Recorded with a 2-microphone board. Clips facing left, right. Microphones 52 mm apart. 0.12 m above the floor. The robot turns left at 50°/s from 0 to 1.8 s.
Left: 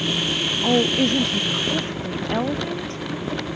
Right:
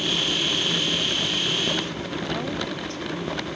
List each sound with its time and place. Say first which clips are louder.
0.6 s a woman speaking: left 7 dB; 85° left; by 3.0 s 30° left